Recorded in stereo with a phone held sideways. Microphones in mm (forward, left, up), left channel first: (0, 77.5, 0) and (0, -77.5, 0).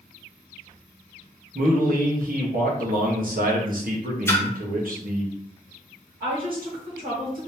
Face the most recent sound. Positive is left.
turn(degrees=-65)  # may be behind; listen again after turning